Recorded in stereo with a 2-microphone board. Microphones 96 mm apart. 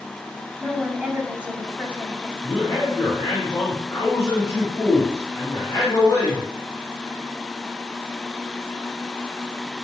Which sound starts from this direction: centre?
A woman speaking, at 0.6 s.